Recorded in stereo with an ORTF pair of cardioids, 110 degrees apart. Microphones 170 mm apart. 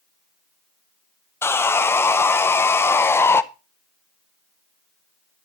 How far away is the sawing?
About 0.5 m.